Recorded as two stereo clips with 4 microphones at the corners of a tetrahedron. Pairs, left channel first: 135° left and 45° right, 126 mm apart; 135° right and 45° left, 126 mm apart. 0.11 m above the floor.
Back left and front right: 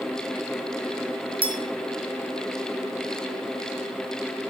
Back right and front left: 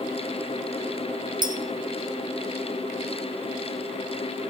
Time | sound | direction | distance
1.4 | a clink | 5° right | 1.6 m